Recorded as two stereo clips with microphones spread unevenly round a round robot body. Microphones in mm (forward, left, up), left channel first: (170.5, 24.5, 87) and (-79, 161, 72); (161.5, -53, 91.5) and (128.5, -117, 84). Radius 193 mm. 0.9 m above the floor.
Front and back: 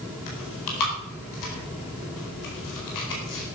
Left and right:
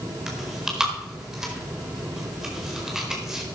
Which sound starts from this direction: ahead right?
Chewing, at 0.3 s.